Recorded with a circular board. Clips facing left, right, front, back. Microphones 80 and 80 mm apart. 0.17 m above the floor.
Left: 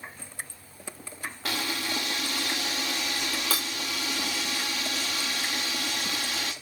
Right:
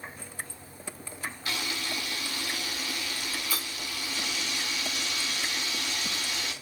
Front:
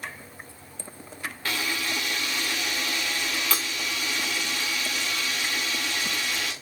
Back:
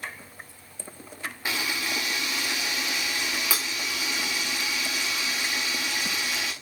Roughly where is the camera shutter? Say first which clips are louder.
Left 4 dB, even; left.